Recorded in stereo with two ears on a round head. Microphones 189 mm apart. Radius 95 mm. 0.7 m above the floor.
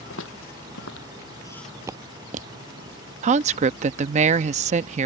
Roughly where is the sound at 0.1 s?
Left.